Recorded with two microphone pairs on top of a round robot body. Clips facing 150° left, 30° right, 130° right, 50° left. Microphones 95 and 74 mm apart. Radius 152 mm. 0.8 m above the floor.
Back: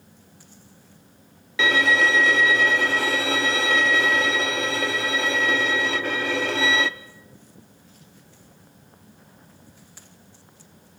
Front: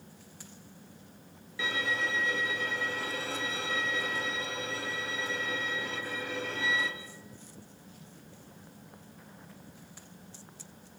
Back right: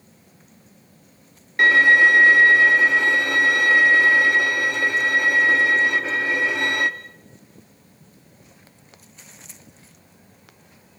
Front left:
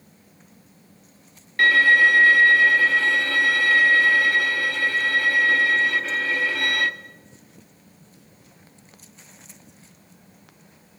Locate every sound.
1.6 s a violin: 160° left, 0.8 m